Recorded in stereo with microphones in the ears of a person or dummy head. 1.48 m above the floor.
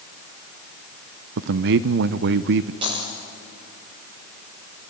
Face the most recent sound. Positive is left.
turn(degrees=-25)  # may be behind; listen again after turning